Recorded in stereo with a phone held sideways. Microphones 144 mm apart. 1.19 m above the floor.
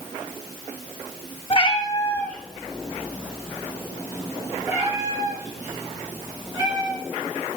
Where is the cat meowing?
40° left (ahead or behind), 0.9 m; by 7.0 s 25° right (ahead or behind), 5.5 m.